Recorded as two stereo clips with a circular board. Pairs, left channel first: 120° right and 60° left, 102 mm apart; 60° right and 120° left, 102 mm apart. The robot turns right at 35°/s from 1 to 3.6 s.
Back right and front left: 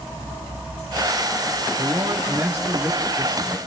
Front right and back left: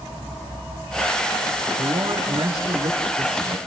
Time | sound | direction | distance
1.8 | a man speaking | 95° left | 3 m